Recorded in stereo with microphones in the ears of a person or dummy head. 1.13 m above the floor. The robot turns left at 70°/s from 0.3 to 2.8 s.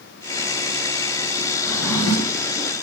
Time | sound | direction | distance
1.6 | a drawer | 175° right | 1.1 m